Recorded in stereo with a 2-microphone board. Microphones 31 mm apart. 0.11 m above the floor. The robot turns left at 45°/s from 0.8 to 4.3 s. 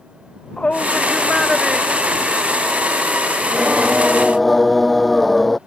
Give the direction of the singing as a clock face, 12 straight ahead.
5 o'clock.